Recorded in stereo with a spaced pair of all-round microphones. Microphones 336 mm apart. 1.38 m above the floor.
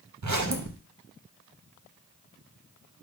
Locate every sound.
0.2 s a zipper: 55° right (ahead or behind), 0.7 m